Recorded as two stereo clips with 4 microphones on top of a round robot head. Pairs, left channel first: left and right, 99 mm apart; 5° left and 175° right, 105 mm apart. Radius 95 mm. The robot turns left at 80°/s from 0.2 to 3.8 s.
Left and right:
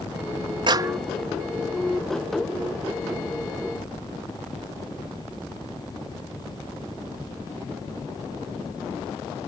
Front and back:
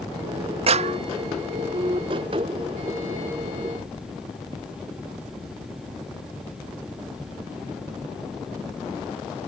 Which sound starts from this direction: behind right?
A clap, at 0.7 s.